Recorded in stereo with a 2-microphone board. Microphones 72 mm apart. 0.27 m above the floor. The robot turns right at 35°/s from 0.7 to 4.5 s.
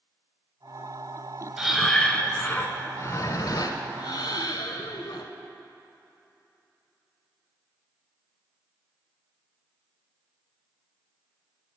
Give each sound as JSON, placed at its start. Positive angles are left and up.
{"t": 1.6, "sound": "breathing", "azimuth_deg": -5, "distance_m": 0.8}